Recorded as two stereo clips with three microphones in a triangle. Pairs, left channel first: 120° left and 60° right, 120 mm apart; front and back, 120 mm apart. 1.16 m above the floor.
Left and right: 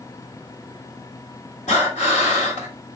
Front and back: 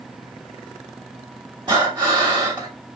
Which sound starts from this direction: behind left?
Breathing, at 1.7 s.